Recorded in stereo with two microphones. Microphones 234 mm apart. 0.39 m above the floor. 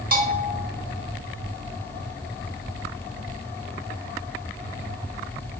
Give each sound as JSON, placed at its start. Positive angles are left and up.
{"t": 0.1, "sound": "a bell", "side_deg": -40, "distance_m": 0.7}